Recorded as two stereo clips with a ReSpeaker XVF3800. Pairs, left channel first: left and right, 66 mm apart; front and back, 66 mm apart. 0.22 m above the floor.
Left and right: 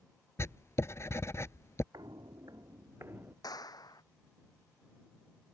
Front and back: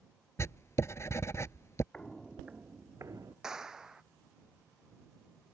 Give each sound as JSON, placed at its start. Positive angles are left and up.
{"t": 0.4, "sound": "writing", "azimuth_deg": 45}
{"t": 1.9, "sound": "footsteps", "azimuth_deg": -75}
{"t": 3.4, "sound": "a clap", "azimuth_deg": 100}